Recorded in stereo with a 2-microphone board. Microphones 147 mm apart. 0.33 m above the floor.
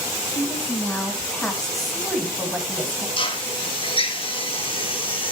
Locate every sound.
0.3 s a woman speaking: 20° left (ahead or behind), 2.5 m; by 3.1 s 15° right (ahead or behind), 2.5 m
3.2 s a drill: 40° left (ahead or behind), 1.4 m